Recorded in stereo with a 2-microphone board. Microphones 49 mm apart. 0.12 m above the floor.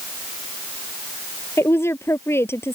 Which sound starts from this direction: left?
A woman speaking, at 1.6 s.